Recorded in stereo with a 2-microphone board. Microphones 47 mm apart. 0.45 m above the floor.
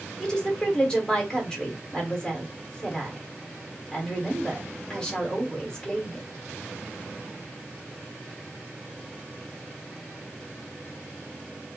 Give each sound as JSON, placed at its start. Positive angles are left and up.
{"t": 0.2, "sound": "a woman speaking", "side_deg": 15, "distance_m": 1.0}